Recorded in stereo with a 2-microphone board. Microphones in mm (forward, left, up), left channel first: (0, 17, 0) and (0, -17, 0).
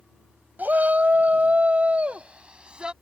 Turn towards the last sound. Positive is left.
turn(degrees=-30)  # may be behind; listen again after turning